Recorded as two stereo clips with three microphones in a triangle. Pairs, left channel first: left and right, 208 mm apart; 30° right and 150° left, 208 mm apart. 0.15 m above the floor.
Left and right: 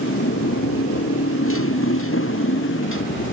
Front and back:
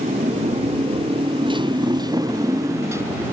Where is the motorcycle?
95° left; by 3.3 s 70° left.